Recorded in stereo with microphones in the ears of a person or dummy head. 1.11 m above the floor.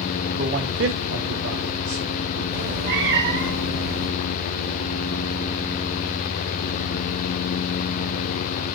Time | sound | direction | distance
0.4 | a man speaking | 35° right (ahead or behind) | 1.4 m
2.5 | a cat meowing | 55° right (ahead or behind) | 1.7 m